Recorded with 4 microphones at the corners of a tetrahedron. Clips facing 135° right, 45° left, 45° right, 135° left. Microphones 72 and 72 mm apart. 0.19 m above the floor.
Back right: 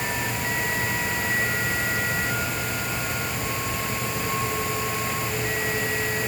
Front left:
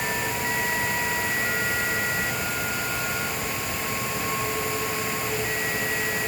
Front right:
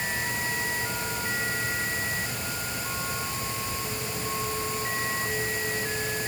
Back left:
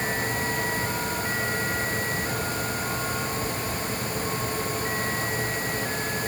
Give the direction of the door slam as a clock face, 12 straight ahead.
I don't hear a door slam.